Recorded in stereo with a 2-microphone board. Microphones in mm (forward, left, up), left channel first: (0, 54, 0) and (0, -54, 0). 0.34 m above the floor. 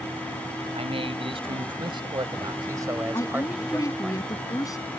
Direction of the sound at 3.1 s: 30° left (ahead or behind).